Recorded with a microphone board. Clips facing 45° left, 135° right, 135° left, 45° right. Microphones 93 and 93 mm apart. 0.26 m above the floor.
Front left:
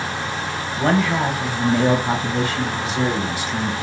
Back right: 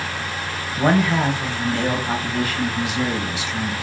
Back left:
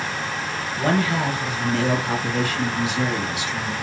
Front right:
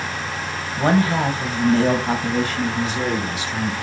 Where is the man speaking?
65° right, 1.0 m; by 3.7 s 5° left, 1.8 m.